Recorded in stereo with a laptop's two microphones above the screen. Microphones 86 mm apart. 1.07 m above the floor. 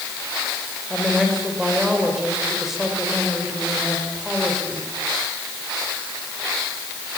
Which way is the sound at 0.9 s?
5° right (ahead or behind).